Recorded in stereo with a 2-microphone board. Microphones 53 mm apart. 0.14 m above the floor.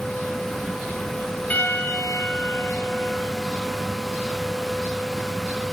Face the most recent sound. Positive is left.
turn(degrees=30)  # may be behind; listen again after turning